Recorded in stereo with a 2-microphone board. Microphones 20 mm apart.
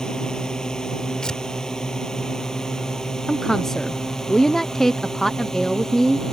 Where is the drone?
35° left (ahead or behind); by 6.3 s 25° left (ahead or behind).